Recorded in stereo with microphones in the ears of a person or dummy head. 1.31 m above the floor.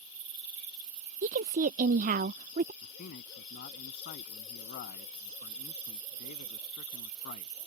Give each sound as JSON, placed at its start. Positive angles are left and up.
{"t": 1.2, "sound": "a woman speaking", "side_deg": -45}
{"t": 2.8, "sound": "a man speaking", "side_deg": 50}